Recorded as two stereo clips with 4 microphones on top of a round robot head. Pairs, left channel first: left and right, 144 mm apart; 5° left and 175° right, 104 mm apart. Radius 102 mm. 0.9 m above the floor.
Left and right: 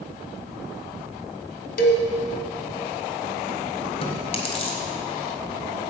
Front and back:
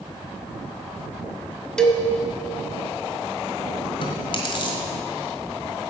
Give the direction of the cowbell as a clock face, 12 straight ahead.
9 o'clock.